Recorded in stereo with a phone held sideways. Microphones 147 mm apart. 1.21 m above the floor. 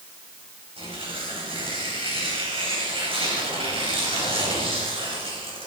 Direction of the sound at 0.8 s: 40° right (ahead or behind).